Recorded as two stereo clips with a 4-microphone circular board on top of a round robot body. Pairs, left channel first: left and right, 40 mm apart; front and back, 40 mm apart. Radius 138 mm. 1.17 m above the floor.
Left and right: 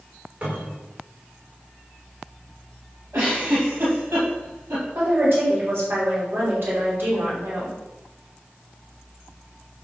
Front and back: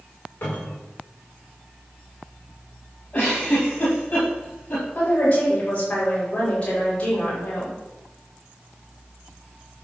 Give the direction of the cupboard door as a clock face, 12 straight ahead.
1 o'clock.